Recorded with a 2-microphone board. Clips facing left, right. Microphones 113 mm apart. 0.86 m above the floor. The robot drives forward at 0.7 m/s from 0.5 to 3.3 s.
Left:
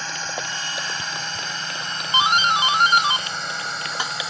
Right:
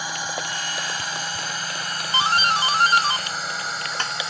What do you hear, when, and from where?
0.0 s a drone: 10° right (ahead or behind); by 4.3 s centre (ahead or behind)
2.1 s a doorbell: 20° left (ahead or behind); by 4.3 s 10° left (ahead or behind)